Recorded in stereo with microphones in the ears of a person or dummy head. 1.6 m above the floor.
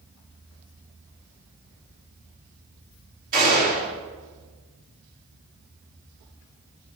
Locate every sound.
3.3 s a gunshot: 45° right (ahead or behind), 5.5 m